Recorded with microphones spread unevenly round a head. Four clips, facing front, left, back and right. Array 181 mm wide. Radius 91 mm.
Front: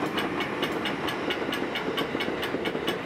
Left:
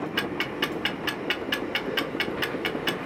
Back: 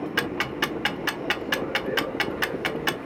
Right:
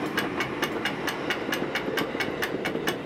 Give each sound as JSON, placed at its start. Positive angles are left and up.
{"t": 0.2, "sound": "ticking", "azimuth_deg": -175, "distance_m": 0.5}